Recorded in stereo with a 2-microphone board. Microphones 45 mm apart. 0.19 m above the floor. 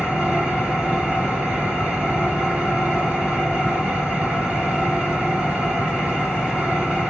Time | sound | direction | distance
0.0 | an engine running | 20° right (ahead or behind) | 1.7 m